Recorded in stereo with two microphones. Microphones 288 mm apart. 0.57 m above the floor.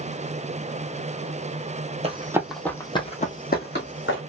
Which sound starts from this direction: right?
Running footsteps, at 2.0 s.